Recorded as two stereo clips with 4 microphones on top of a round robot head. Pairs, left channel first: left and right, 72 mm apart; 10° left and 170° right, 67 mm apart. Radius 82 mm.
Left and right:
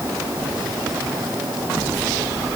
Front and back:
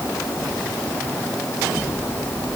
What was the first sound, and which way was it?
Only background noise.